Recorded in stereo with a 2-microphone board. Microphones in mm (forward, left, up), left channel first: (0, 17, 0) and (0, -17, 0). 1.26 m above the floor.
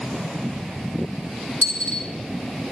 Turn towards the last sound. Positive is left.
turn(degrees=45)  # may be behind; listen again after turning